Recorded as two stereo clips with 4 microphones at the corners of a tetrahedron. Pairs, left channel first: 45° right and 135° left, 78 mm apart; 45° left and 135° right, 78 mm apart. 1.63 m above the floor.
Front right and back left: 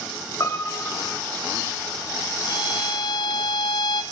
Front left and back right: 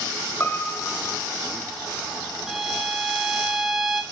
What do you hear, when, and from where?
0.4 s a piano: 5° right, 2.5 m
2.5 s a violin: 50° right, 2.5 m